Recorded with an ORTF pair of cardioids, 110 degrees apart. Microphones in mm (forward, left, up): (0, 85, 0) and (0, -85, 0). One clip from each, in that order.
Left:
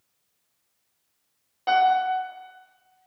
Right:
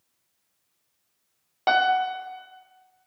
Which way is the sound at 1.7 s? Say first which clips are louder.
Left 1 dB; 45° right.